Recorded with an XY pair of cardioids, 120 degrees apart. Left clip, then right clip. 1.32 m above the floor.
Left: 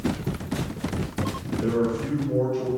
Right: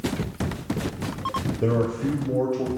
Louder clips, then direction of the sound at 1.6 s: Even; 65° right.